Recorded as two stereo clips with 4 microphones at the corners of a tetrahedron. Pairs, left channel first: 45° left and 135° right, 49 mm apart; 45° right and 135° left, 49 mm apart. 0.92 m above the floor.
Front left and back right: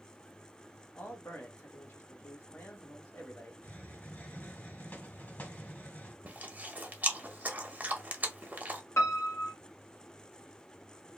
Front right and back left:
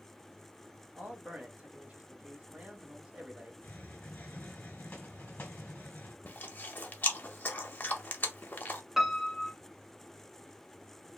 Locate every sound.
0.9 s a man speaking: 75° left, 1.2 m
3.6 s a hiss: 5° left, 1.4 m
6.2 s chewing: 90° right, 0.7 m
9.0 s a piano: 55° left, 0.8 m